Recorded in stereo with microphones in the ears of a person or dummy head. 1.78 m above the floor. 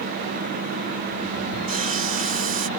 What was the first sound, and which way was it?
Sawing, 45° right (ahead or behind).